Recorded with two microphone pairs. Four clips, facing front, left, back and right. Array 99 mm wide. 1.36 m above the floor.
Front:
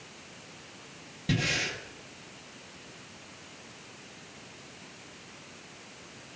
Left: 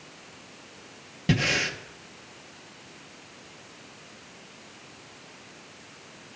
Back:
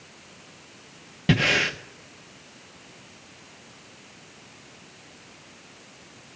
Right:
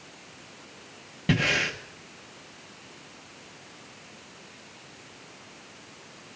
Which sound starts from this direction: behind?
Breathing, at 1.3 s.